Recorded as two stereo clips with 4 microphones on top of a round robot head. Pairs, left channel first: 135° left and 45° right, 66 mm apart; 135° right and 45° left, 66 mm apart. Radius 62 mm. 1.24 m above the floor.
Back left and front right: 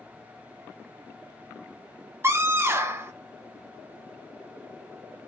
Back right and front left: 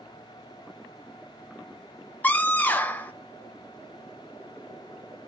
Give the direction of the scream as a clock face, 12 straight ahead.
3 o'clock.